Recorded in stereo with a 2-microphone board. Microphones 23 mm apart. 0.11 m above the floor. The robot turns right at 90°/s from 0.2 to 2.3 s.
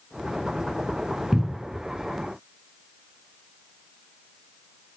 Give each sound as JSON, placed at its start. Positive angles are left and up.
{"t": 1.3, "sound": "a cupboard door", "side_deg": -15, "distance_m": 0.8}